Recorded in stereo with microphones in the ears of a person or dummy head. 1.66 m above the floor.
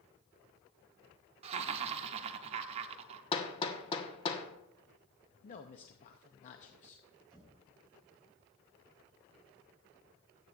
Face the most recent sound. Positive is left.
turn(degrees=5)  # may be behind; listen again after turning